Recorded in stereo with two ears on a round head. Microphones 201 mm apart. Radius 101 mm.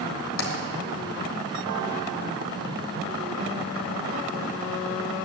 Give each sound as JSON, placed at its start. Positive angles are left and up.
{"t": 0.4, "sound": "tapping", "side_deg": 65, "distance_m": 2.5}